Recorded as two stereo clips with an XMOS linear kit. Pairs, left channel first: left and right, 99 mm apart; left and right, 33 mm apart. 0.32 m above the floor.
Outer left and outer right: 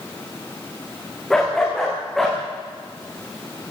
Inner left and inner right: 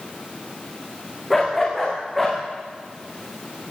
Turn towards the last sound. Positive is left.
turn(degrees=0)  # may be behind; listen again after turning